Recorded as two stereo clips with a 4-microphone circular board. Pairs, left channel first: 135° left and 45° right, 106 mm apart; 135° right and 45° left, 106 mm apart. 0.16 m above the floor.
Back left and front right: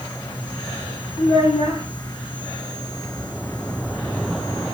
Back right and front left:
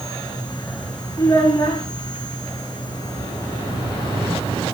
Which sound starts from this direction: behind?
A child speaking, at 1.2 s.